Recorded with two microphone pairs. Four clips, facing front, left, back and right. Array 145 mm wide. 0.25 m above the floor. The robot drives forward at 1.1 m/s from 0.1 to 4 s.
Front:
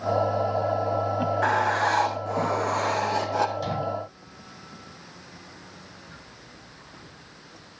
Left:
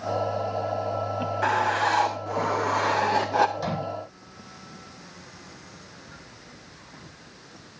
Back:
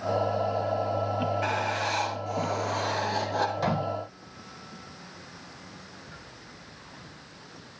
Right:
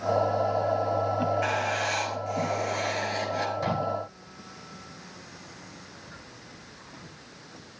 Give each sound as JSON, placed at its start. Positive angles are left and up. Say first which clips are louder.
{"t": 1.4, "sound": "writing", "louder": "left 5 dB, front 6 dB", "azimuth_deg": 40, "distance_m": 3.5}
{"t": 3.6, "sound": "a microwave", "louder": "right 1 dB, back 1 dB", "azimuth_deg": 180, "distance_m": 9.5}